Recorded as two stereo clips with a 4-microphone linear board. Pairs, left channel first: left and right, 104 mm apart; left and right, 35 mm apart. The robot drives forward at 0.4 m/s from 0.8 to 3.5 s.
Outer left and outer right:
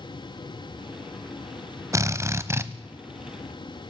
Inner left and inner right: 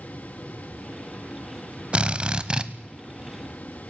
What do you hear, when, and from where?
1.9 s a drill: 30° right (ahead or behind), 1.2 m; by 2.7 s 25° right (ahead or behind), 1.4 m